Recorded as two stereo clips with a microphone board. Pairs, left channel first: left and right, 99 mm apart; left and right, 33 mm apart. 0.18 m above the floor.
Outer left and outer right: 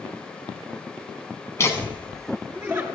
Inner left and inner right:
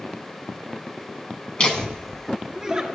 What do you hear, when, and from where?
1.6 s laughter: 30° left (ahead or behind), 1.5 m; by 2.9 s 20° right (ahead or behind), 1.7 m